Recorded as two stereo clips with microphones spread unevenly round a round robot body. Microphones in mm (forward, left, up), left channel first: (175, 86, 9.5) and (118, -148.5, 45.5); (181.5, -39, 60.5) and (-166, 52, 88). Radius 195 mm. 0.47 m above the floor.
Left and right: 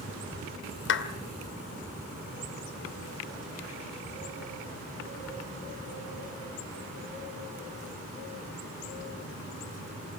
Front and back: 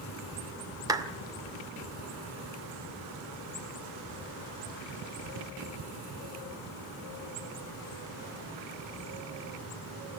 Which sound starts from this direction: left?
A clap, at 0.9 s.